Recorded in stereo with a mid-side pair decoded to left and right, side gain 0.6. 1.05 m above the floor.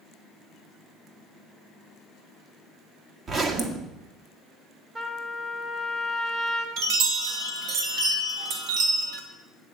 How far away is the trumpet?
About 2 m.